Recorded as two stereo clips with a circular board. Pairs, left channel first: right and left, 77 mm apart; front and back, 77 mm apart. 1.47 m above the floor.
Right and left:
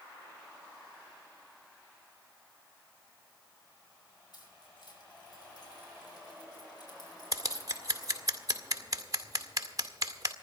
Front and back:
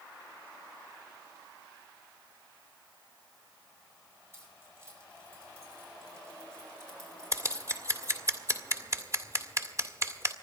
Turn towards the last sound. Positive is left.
turn(degrees=130)